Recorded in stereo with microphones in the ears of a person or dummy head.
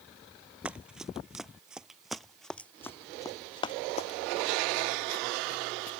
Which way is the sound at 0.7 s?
10° right (ahead or behind).